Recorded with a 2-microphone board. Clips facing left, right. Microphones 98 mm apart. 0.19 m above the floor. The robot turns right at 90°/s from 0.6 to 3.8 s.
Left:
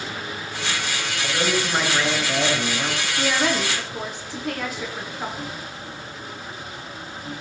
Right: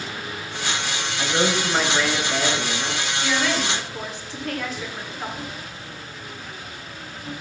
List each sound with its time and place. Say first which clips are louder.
1.2 s a man speaking: right 2 dB; 60° right, 3.5 m; by 3.1 s 110° left, 3.5 m
3.2 s a woman speaking: left 2 dB; 110° left, 2.5 m; by 5.5 s 165° left, 2.5 m